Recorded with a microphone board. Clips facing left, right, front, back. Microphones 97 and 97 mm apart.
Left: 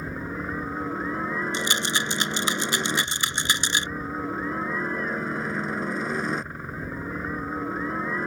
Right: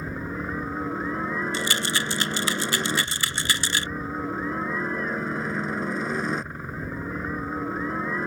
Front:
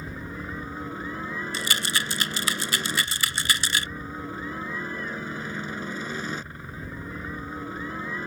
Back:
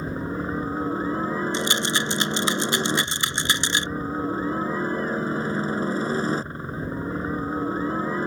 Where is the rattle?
135° left.